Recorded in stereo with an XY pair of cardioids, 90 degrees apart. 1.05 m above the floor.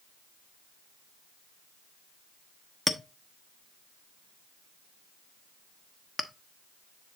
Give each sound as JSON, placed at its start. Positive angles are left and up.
{"t": 2.9, "sound": "a clink", "azimuth_deg": 5, "distance_m": 1.0}